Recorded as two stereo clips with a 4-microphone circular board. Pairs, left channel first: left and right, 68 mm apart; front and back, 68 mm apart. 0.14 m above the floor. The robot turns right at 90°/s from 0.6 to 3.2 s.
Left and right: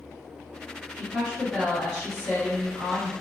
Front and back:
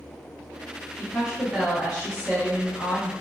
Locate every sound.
0.9 s a woman speaking: 120° right, 1.5 m; by 3.1 s 75° left, 1.5 m